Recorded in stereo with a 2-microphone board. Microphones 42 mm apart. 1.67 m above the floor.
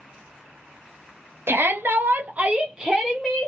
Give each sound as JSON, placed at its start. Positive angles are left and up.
{"t": 1.5, "sound": "a shout", "side_deg": -70, "distance_m": 0.8}